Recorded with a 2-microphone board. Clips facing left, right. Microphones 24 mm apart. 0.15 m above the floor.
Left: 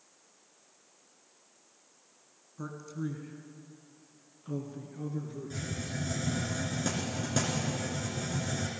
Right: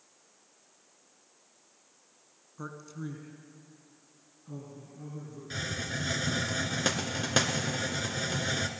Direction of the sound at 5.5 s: 55° right (ahead or behind).